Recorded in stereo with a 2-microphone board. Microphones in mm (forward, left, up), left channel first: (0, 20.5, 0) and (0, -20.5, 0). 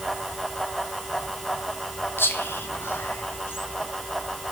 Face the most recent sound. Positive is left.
turn(degrees=80)